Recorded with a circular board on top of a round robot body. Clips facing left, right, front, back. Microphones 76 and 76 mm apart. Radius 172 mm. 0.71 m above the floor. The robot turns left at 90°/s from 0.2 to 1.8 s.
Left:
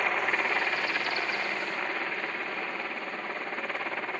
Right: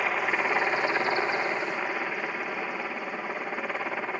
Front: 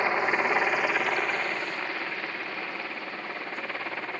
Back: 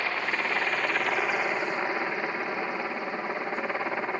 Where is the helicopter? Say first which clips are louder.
Right 1 dB, front 4 dB; 10° right; by 4.2 s 155° right.